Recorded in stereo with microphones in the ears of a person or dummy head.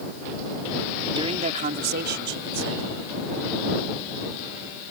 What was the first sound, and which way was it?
A man speaking, 20° right (ahead or behind).